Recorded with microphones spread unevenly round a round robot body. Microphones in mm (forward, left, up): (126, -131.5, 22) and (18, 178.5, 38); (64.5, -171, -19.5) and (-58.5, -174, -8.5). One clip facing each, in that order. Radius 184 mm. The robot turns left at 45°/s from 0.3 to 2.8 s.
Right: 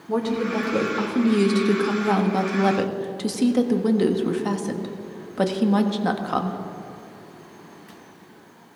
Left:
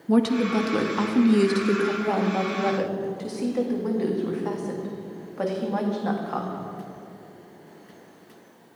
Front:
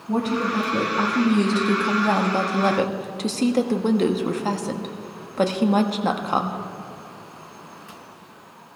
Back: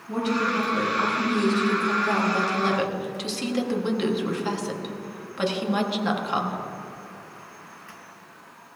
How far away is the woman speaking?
About 1.6 m.